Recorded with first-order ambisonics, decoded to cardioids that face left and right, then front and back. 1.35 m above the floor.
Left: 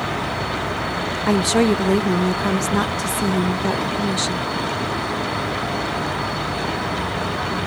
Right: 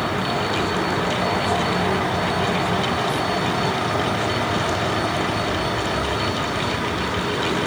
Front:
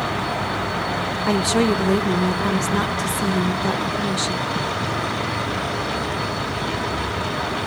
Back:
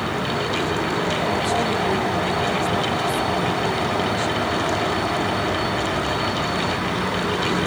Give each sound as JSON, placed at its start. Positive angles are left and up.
{"t": 1.3, "sound": "a woman speaking", "azimuth_deg": 55, "distance_m": 0.8}